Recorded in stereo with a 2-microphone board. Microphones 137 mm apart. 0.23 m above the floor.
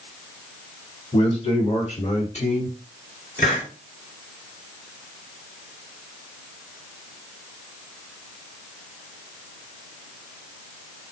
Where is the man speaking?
45° left (ahead or behind), 2 m; by 2.8 s 55° left (ahead or behind), 2.5 m.